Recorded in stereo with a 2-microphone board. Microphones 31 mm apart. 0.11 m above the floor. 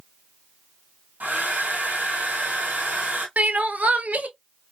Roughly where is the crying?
Right.